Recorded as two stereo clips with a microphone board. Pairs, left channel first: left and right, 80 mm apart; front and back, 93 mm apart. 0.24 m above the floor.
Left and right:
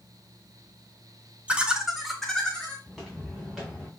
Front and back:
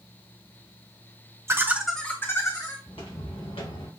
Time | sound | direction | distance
1.5 | laughter | 155° right | 1.1 m
2.9 | footsteps | 5° left | 3.5 m